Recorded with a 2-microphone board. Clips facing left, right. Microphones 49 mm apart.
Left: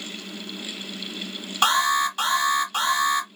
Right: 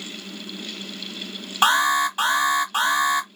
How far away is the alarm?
About 1.7 m.